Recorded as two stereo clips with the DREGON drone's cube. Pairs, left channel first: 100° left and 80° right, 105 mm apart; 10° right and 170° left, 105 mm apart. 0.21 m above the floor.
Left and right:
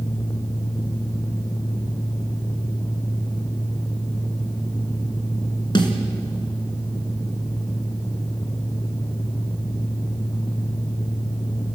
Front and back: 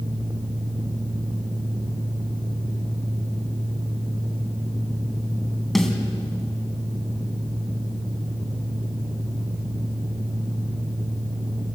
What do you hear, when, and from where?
5.8 s a snare drum: 80° left, 2.5 m